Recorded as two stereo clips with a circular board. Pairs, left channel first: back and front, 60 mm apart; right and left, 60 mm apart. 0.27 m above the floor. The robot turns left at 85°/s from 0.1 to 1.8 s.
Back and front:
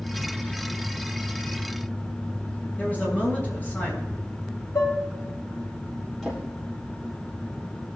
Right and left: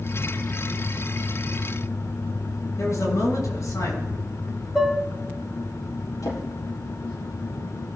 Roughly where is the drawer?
Right.